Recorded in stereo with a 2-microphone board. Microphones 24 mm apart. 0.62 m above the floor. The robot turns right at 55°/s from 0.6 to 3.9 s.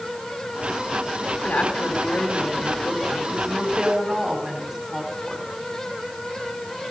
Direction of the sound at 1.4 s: 75° left.